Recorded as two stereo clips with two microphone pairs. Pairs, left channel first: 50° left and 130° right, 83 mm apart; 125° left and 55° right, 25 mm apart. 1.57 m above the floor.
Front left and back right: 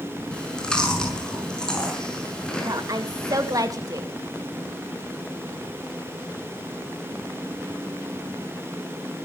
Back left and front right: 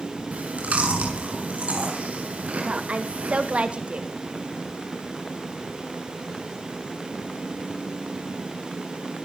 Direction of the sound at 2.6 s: 85° right.